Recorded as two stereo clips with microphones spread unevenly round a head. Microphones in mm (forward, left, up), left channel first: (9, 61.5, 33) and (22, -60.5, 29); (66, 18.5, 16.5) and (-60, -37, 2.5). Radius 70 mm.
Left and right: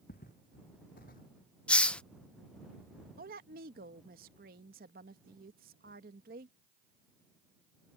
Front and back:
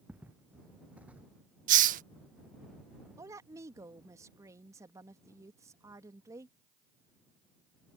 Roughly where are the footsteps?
Behind left.